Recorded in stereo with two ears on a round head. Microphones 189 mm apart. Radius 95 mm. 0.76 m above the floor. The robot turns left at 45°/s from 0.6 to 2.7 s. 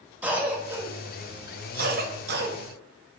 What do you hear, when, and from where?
0.2 s a cough: 10° right (ahead or behind), 0.8 m; by 2.6 s 50° right (ahead or behind), 0.8 m